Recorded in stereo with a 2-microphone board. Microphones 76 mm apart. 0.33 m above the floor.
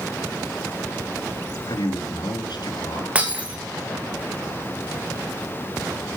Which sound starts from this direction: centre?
Breaking glass, at 3.1 s.